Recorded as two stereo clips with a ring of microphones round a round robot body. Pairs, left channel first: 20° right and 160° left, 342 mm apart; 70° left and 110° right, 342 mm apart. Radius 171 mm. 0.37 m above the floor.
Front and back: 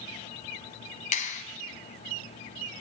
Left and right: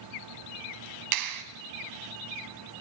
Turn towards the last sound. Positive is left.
turn(degrees=-90)